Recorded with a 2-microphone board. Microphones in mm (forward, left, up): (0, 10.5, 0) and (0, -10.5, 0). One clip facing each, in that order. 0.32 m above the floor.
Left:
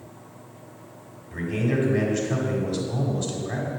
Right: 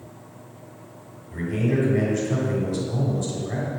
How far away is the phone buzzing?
I don't hear a phone buzzing.